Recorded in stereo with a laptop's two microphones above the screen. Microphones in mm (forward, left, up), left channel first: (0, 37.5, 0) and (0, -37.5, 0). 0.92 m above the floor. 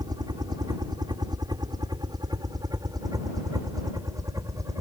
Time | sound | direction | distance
0.0 | a helicopter | 60° right (ahead or behind) | ?